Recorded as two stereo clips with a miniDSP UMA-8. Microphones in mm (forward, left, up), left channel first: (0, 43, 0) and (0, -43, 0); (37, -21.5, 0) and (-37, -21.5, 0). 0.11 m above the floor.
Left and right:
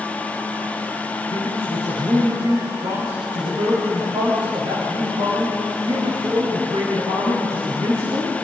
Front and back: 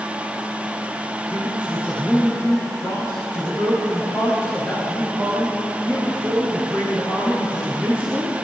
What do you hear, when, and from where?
1.3 s a man speaking: 105° right, 7.5 m